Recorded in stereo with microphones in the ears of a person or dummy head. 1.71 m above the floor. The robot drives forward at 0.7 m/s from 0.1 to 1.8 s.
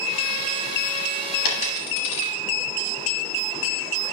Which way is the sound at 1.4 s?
40° left (ahead or behind).